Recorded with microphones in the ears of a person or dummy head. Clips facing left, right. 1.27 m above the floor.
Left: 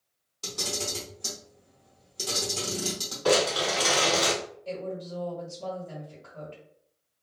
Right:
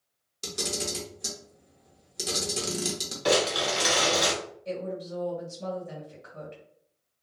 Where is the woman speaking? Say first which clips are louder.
Right 3 dB; 20° right (ahead or behind), 1.6 m.